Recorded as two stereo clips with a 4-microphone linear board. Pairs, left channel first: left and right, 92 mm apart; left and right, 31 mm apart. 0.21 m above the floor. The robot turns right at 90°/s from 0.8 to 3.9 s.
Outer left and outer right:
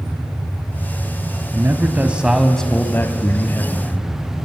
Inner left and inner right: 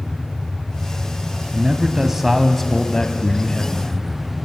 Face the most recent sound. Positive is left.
turn(degrees=20)  # may be behind; listen again after turning